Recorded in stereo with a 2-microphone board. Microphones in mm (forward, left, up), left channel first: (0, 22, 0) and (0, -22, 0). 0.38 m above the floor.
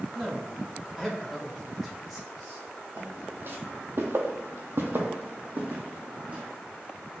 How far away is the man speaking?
About 1.4 m.